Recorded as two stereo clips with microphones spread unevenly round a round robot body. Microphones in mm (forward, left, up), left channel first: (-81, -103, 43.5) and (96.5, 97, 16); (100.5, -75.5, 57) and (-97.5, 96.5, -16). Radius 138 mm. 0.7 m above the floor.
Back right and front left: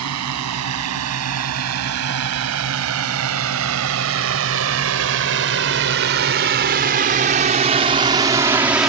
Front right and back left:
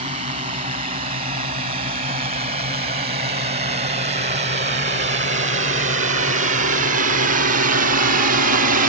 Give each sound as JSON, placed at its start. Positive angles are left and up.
{"t": 0.0, "sound": "a drone", "azimuth_deg": 75}